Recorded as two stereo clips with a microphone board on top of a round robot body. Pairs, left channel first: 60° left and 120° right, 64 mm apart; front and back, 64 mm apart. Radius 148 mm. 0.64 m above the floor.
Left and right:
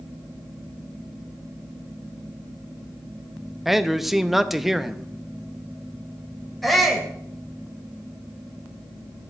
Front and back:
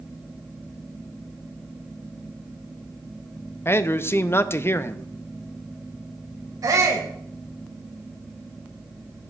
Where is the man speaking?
35° right, 0.8 m.